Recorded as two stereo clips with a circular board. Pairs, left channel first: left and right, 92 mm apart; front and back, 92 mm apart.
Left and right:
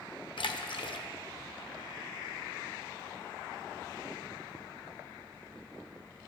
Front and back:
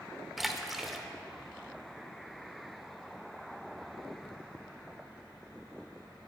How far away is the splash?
About 0.5 m.